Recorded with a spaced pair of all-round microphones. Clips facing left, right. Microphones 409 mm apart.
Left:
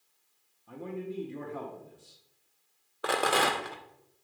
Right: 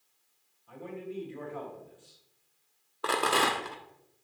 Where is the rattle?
10° right (ahead or behind), 0.6 m.